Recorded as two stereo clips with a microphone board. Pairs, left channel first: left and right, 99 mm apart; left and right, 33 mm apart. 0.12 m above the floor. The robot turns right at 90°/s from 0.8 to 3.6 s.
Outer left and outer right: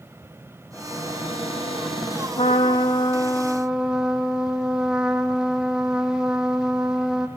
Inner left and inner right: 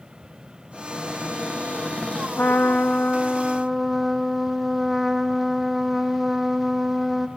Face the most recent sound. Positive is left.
turn(degrees=-175)